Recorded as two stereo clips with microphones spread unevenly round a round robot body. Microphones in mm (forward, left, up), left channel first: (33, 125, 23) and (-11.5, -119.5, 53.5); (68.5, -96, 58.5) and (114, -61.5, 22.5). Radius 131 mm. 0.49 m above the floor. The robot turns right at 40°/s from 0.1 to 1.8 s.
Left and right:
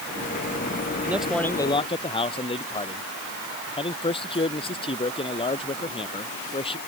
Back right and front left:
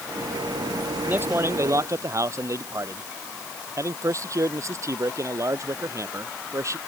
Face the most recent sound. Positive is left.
turn(degrees=10)